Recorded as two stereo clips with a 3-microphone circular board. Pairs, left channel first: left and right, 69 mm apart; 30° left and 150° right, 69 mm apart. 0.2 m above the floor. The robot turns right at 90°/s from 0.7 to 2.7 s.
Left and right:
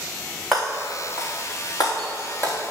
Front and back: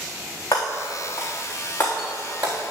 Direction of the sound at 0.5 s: 5° right.